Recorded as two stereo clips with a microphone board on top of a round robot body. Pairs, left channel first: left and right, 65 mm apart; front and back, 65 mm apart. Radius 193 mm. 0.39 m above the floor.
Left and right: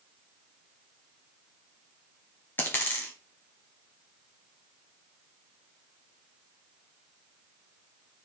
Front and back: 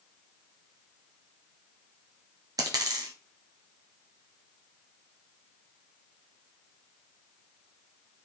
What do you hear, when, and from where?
2.6 s a dropped coin: 155° left, 1.2 m